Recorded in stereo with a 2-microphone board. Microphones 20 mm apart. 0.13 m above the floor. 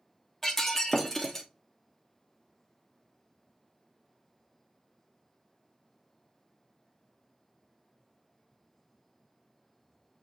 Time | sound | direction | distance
0.4 | breaking glass | 15° left (ahead or behind) | 1.1 m